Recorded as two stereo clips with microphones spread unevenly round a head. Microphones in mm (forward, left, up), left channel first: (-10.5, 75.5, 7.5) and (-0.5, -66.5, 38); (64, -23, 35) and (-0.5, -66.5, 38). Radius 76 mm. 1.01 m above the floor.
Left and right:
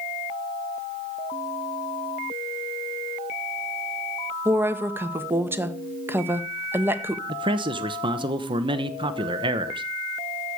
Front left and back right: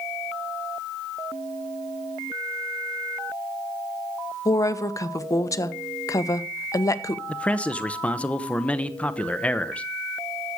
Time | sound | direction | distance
4.5 | a woman speaking | 5° right | 1.0 m
7.3 | a man speaking | 30° right | 0.8 m